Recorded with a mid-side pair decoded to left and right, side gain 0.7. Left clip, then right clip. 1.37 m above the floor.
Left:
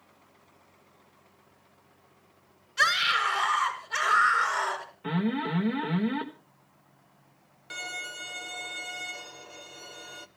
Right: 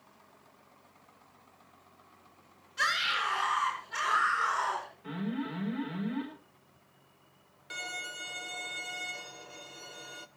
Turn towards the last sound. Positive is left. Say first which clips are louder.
# left 2 dB
turn(degrees=10)